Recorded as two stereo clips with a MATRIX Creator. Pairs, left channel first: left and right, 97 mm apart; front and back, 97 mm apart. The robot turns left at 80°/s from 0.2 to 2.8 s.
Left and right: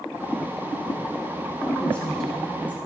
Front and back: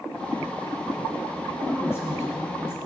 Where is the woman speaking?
50° left, 1.6 m; by 2.8 s 40° right, 1.6 m.